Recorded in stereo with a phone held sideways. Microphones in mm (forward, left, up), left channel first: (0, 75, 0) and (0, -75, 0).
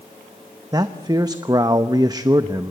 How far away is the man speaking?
About 0.8 m.